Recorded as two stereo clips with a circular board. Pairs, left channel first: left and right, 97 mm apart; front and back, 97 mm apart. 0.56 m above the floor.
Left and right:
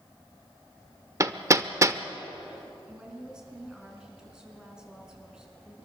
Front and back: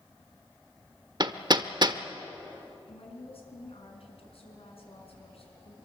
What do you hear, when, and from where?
1.2 s hammering: 145° right, 1.0 m
2.9 s a woman speaking: 10° right, 6 m